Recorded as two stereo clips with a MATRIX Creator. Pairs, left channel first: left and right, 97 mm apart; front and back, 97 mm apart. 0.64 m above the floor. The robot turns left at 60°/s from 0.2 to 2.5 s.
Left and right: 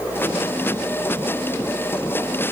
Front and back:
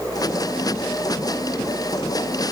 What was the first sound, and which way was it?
Only background noise.